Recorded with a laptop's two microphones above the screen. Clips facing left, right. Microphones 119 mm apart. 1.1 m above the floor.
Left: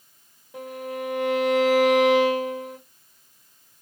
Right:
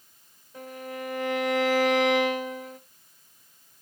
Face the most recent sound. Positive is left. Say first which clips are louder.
# left 5 dB
turn(degrees=85)